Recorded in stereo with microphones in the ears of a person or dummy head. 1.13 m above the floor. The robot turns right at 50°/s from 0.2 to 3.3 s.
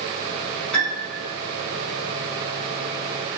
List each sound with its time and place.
0.7 s a piano: 5° left (ahead or behind), 6.5 m; by 1.2 s 30° left (ahead or behind), 6.5 m